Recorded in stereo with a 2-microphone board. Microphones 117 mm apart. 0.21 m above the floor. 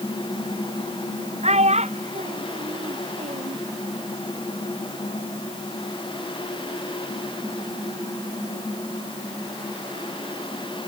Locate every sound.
1.4 s a child speaking: 70° right (ahead or behind); by 3.6 s 80° right